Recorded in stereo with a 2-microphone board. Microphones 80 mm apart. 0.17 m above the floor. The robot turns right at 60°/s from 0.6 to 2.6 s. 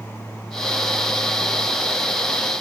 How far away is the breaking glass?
I don't hear breaking glass.